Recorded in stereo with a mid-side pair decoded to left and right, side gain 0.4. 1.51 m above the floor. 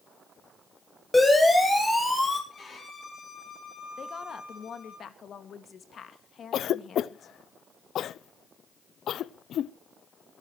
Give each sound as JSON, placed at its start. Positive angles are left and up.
{"t": 1.1, "sound": "a siren", "azimuth_deg": 20, "distance_m": 8.5}
{"t": 2.5, "sound": "a violin", "azimuth_deg": 45, "distance_m": 9.0}
{"t": 4.0, "sound": "a woman speaking", "azimuth_deg": 55, "distance_m": 2.0}
{"t": 6.5, "sound": "a cough", "azimuth_deg": 70, "distance_m": 0.5}